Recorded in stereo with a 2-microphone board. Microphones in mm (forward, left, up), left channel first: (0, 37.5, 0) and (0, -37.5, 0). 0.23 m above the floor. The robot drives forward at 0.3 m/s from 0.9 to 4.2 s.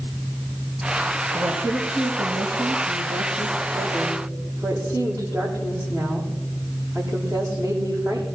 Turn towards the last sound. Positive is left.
turn(degrees=-45)  # may be behind; listen again after turning